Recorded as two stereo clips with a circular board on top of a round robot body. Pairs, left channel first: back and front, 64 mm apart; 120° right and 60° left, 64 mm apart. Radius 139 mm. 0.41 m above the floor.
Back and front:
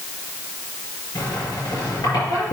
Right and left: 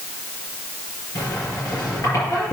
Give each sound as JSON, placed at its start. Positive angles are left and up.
{"t": 1.1, "sound": "a squeak", "azimuth_deg": -165, "distance_m": 4.5}